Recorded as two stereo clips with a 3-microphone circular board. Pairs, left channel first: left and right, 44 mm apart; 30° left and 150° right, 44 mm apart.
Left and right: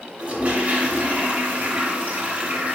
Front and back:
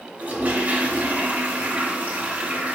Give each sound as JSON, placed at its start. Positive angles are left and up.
{"t": 0.2, "sound": "a toilet flushing", "azimuth_deg": -135, "distance_m": 1.5}